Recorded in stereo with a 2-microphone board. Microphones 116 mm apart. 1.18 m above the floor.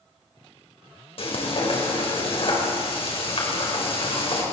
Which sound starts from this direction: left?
Frying, at 1.2 s.